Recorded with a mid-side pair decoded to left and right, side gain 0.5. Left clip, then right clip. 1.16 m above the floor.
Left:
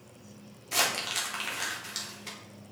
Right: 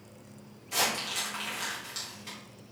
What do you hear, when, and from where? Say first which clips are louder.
0.7 s crumpling: left 1 dB; 40° left, 3.5 m